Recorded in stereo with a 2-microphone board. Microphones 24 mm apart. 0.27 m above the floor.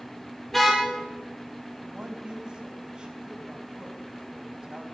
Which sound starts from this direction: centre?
A car horn, at 0.5 s.